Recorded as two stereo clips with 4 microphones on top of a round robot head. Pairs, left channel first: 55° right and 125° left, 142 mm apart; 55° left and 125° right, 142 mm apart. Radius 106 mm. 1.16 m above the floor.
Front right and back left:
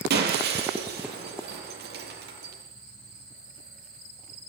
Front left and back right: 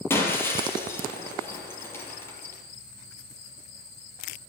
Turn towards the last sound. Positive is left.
turn(degrees=130)